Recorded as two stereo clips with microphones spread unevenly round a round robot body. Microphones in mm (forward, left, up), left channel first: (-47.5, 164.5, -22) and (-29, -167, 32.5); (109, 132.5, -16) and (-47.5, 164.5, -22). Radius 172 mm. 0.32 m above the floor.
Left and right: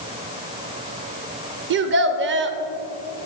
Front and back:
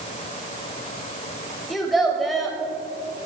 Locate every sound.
1.7 s a child speaking: 105° right, 0.6 m